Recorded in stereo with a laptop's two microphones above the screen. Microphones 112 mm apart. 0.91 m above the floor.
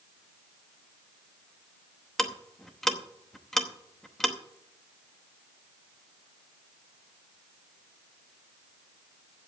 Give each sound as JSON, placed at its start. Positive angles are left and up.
{"t": 2.2, "sound": "ticking", "side_deg": 5, "distance_m": 0.8}